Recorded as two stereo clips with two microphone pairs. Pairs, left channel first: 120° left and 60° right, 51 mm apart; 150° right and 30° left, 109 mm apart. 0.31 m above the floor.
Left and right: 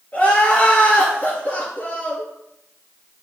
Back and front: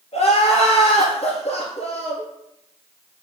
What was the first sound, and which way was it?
Crying, straight behind.